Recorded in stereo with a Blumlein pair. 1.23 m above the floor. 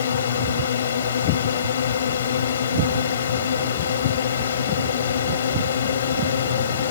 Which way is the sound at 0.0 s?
65° left.